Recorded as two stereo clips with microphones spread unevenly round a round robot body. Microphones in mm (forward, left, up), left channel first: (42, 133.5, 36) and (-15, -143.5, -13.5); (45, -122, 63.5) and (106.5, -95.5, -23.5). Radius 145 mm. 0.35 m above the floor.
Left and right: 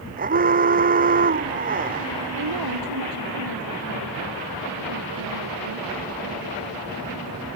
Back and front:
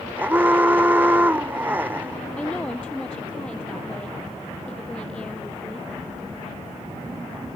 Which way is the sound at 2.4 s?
80° right.